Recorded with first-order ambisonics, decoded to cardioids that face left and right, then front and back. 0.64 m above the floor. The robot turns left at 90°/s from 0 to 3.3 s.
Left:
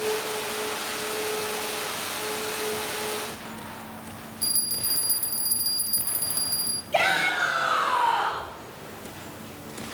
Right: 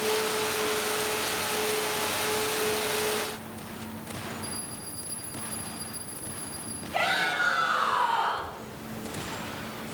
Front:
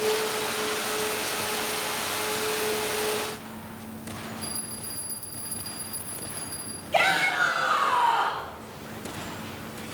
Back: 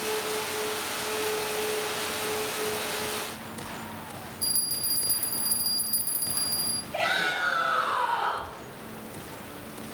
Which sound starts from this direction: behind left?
A bell, at 4.4 s.